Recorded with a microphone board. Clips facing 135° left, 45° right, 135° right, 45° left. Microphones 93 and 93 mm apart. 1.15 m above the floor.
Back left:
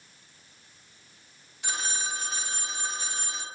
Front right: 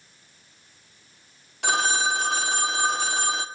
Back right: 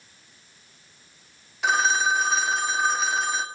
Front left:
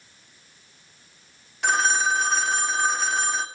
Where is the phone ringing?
50° right, 1.4 m.